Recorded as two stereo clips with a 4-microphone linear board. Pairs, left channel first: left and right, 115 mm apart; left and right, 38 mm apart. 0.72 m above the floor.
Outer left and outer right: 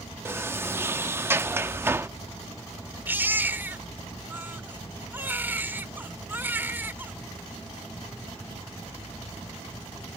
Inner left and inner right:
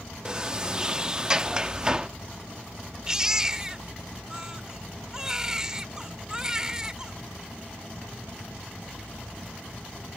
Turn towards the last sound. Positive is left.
turn(degrees=-15)  # may be behind; listen again after turning